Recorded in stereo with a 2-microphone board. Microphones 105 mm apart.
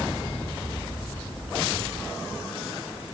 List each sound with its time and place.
Only background noise.